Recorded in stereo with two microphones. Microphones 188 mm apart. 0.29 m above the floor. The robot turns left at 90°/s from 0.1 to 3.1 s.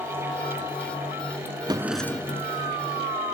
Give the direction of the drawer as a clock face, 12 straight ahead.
5 o'clock.